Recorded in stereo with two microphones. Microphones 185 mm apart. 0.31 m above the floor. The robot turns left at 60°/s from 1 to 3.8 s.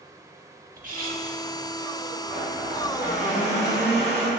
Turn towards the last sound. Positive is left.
turn(degrees=-95)